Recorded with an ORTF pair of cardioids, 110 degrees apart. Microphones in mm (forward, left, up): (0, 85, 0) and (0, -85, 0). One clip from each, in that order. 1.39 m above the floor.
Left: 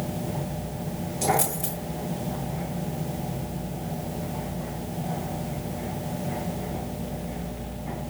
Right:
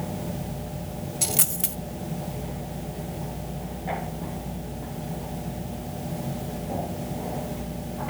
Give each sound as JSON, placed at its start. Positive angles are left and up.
{"t": 1.2, "sound": "a dropped coin", "azimuth_deg": -55, "distance_m": 3.5}